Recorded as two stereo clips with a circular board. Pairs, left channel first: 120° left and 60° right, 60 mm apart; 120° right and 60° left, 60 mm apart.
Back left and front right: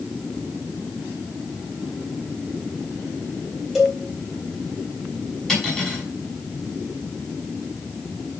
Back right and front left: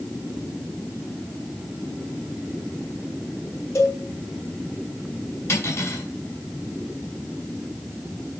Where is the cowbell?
145° right, 3 m.